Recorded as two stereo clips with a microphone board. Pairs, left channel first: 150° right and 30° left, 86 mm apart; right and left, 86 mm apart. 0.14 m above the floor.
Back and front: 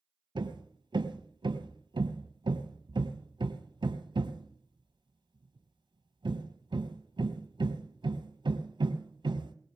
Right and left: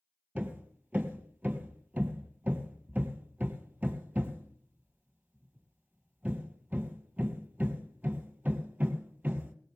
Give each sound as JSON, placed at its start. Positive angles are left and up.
{"t": 0.3, "sound": "hammering", "azimuth_deg": 15, "distance_m": 1.4}